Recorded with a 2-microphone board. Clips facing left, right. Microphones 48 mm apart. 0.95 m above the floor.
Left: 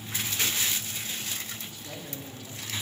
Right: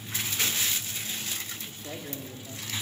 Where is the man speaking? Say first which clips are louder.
Right 2 dB; 45° right (ahead or behind), 2 m; by 2.7 s 15° right (ahead or behind), 1.7 m.